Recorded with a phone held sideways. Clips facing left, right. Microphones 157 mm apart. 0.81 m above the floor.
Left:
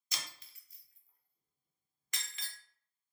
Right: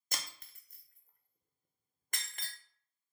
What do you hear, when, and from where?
0.1 s breaking glass: 50° right (ahead or behind), 0.6 m